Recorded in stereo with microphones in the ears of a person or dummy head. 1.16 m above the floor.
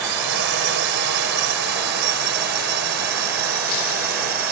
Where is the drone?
60° right (ahead or behind); by 4.5 s 50° right (ahead or behind).